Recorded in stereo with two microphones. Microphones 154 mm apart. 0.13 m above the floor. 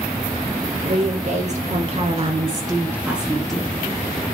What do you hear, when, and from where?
0.8 s a woman speaking: 50° right (ahead or behind), 2.5 m; by 3.7 s 10° left (ahead or behind), 1.9 m